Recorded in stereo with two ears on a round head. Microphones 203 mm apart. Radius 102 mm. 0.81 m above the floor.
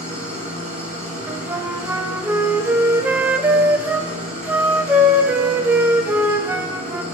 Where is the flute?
10° right (ahead or behind), 0.6 m.